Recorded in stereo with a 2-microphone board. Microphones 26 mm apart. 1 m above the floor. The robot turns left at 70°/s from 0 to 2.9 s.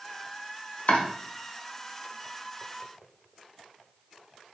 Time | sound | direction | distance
0.9 | chopping | 55° left (ahead or behind) | 0.7 m